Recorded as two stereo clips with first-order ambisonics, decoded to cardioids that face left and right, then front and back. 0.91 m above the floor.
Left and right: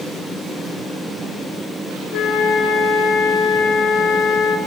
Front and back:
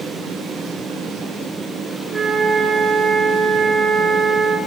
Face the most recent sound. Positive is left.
turn(degrees=105)